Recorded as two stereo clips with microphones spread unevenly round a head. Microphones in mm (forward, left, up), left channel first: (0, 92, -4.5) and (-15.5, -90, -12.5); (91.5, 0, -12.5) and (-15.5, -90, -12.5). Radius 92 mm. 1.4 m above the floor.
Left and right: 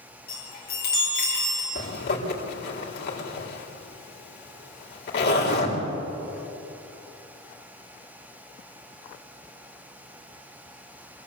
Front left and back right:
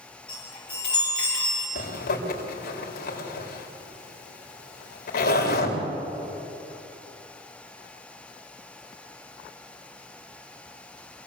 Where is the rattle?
I don't hear a rattle.